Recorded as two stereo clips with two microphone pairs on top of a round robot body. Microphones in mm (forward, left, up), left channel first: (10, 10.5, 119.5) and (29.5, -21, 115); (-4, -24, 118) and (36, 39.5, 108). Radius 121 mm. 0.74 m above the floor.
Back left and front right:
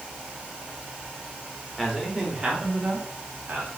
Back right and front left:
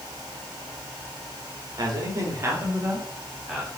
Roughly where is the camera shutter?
I don't hear a camera shutter.